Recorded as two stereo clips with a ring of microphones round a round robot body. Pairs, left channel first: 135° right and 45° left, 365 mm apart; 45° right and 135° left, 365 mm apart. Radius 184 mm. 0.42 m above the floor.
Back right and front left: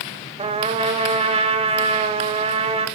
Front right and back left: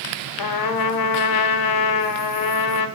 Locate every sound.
0.4 s a trumpet: 30° right, 1.4 m